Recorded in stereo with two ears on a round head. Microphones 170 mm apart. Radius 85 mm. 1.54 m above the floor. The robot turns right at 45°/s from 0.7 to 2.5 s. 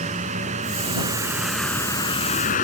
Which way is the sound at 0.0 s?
40° right.